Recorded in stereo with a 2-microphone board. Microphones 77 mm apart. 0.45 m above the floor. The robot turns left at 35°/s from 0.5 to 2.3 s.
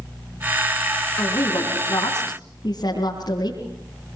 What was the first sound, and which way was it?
A woman speaking, 115° left.